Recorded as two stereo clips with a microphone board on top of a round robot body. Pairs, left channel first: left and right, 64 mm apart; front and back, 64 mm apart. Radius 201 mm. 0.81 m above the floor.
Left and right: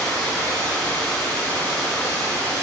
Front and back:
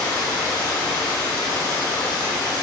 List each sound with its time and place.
0.0 s running water: 15° left, 1.6 m